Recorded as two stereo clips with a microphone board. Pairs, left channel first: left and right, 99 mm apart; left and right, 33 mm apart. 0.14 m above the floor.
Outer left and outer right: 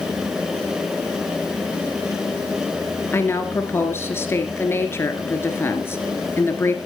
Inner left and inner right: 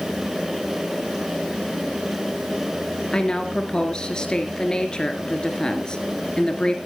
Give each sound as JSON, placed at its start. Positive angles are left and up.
{"t": 3.1, "sound": "a woman speaking", "side_deg": 25, "distance_m": 2.0}